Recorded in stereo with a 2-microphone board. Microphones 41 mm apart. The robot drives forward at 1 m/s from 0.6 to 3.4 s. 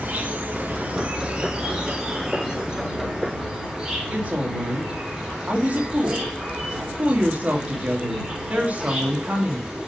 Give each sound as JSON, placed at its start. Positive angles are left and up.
{"t": 0.0, "sound": "an insect", "side_deg": -45, "distance_m": 1.3}
{"t": 4.1, "sound": "a woman speaking", "side_deg": -35, "distance_m": 2.5}